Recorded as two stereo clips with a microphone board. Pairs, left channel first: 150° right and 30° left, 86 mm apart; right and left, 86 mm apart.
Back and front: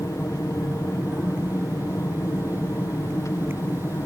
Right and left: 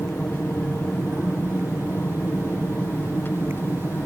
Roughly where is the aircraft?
Behind right.